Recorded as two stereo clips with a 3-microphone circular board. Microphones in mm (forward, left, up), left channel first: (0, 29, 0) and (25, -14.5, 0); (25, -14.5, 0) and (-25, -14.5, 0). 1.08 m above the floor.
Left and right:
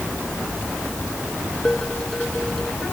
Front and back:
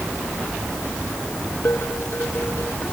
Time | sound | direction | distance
1.6 | dishes clattering | 45° left | ?